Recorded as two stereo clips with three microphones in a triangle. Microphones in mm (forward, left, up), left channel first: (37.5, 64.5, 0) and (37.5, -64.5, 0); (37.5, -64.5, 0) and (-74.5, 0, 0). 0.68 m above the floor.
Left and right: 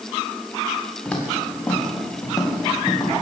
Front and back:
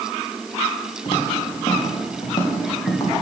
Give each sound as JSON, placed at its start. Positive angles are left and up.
{"t": 1.1, "sound": "footsteps", "azimuth_deg": 15, "distance_m": 4.0}